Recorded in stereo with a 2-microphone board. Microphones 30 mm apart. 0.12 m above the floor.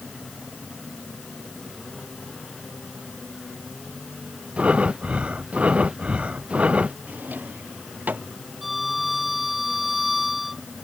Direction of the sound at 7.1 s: 85° right.